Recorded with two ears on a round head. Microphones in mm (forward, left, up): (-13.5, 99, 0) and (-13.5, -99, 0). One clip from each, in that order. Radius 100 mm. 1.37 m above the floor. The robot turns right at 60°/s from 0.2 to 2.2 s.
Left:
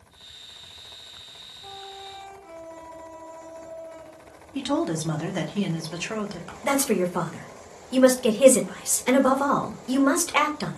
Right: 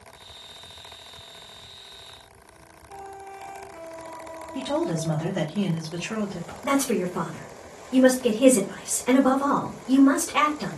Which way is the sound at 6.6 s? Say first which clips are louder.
Left 1 dB; 55° left (ahead or behind).